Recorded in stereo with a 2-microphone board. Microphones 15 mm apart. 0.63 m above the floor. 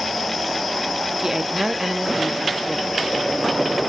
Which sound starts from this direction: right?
A woman speaking, at 1.2 s.